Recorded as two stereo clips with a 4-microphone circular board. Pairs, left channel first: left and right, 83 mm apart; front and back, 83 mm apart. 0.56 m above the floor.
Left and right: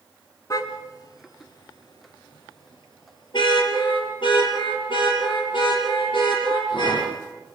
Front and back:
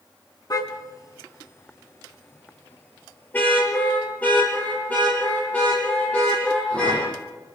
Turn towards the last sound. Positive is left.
turn(degrees=75)